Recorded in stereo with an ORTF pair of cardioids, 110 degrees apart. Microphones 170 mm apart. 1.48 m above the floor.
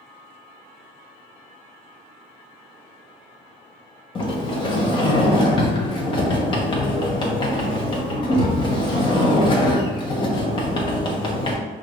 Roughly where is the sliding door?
Ahead left.